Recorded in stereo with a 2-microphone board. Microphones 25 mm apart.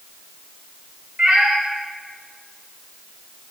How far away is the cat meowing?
About 1.2 m.